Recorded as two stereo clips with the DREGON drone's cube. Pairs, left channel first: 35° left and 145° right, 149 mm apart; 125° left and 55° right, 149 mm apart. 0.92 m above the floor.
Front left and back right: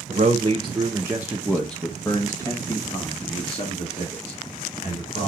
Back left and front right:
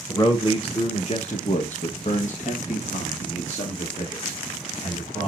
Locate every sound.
0.1 s a man speaking: 175° right, 1.4 m; by 5.3 s 75° left, 3.5 m